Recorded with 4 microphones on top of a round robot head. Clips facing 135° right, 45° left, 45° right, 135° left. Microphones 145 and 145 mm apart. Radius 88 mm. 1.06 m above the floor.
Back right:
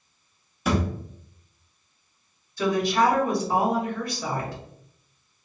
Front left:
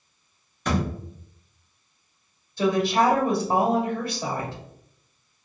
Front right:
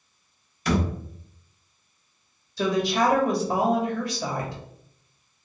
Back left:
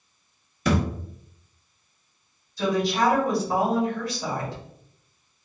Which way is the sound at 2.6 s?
20° right.